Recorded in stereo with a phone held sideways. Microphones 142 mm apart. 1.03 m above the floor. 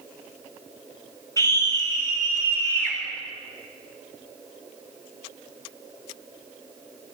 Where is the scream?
25° left (ahead or behind), 8 m; by 3.0 s 15° left (ahead or behind), 9.5 m.